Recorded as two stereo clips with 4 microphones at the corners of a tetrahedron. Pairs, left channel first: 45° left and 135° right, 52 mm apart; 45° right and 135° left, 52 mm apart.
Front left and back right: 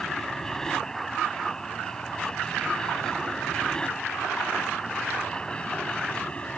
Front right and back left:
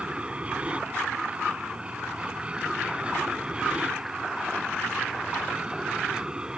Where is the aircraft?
115° left; by 6.6 s 85° left.